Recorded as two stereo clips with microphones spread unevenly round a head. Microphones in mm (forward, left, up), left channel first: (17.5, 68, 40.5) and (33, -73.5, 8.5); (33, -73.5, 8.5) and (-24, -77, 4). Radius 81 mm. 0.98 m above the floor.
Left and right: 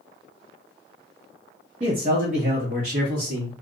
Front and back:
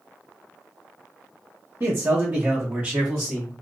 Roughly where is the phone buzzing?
I don't hear a phone buzzing.